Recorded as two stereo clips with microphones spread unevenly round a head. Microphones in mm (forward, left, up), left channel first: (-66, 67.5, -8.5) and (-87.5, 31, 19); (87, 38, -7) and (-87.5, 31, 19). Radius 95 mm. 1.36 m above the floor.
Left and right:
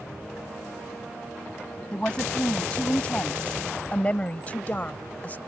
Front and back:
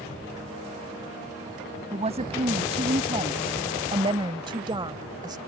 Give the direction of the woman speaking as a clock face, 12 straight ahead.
8 o'clock.